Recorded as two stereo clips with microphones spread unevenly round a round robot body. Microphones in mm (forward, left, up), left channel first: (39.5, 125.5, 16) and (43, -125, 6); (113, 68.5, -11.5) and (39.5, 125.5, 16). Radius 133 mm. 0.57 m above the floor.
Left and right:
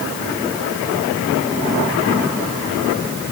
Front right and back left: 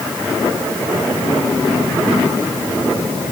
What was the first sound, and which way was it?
Only background noise.